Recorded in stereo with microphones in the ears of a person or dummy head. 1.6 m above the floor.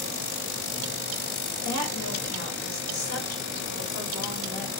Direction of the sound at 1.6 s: 75° right (ahead or behind).